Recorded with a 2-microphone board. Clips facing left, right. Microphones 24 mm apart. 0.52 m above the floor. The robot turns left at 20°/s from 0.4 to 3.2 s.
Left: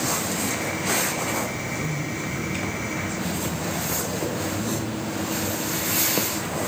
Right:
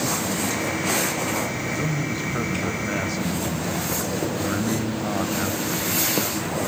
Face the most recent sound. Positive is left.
turn(degrees=-120)